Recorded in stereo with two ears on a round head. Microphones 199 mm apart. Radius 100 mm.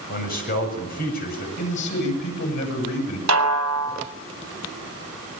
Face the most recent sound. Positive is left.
turn(degrees=-70)  # may be behind; listen again after turning